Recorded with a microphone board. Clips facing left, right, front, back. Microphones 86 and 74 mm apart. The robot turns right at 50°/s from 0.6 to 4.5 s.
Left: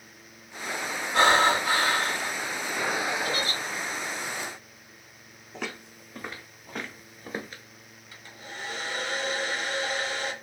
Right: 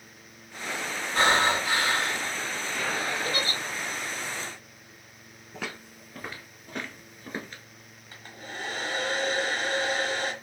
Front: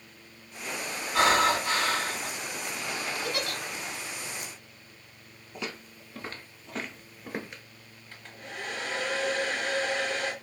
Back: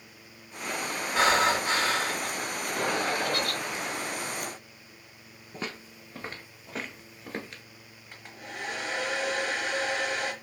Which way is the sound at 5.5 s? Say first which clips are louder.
Left 1 dB, even; 170° right.